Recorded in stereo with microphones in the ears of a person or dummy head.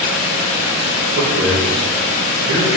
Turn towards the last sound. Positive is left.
turn(degrees=-85)